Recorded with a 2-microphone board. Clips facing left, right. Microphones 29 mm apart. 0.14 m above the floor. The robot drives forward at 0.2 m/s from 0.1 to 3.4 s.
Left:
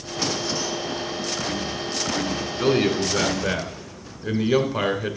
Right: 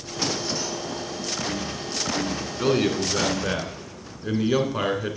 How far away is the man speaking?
About 1.1 m.